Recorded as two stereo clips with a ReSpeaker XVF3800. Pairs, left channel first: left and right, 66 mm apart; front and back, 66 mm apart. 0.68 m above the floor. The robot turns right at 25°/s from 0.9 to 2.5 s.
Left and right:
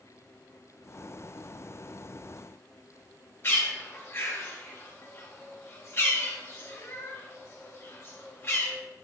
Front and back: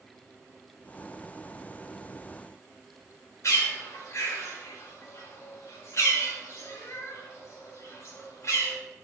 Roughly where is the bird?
Ahead left.